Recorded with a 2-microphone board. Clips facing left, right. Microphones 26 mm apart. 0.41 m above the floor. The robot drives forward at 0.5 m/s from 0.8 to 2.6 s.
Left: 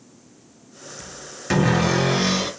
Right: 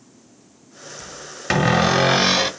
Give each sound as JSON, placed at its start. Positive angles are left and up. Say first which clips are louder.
{"t": 1.5, "sound": "a cupboard door", "louder": "right 2 dB", "side_deg": -35, "distance_m": 0.9}